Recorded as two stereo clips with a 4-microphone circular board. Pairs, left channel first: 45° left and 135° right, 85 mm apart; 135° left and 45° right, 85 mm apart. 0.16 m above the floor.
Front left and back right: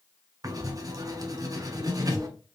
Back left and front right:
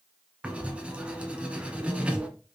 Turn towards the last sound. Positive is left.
turn(degrees=-115)